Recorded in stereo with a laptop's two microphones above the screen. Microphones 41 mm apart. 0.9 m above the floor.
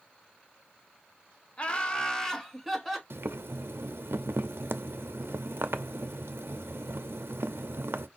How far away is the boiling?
About 0.6 m.